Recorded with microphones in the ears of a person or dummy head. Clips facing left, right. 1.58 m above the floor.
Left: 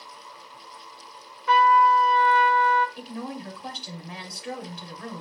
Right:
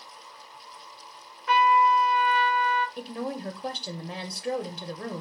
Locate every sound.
1.5 s a trumpet: 75° left (ahead or behind), 0.6 m
3.0 s a woman speaking: 35° right (ahead or behind), 0.5 m